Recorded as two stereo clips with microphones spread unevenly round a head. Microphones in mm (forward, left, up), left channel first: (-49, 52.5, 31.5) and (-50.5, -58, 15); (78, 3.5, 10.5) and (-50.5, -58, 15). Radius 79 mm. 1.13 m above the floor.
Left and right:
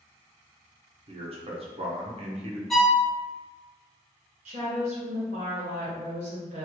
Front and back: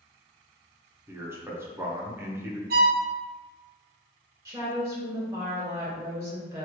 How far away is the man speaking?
About 0.8 m.